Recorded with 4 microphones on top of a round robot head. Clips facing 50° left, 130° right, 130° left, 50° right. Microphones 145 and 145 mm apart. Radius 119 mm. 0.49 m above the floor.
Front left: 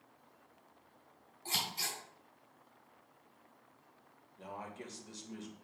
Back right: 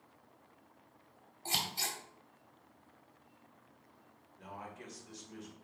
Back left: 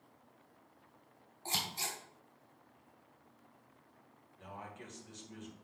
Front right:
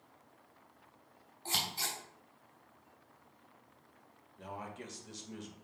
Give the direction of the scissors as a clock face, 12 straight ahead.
6 o'clock.